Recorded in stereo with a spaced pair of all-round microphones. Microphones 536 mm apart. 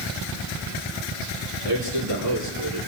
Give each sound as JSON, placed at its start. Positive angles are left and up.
{"t": 1.6, "sound": "a man speaking", "side_deg": -65, "distance_m": 3.5}